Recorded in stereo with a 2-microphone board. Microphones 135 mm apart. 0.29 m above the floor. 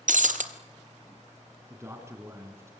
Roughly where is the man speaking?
Right.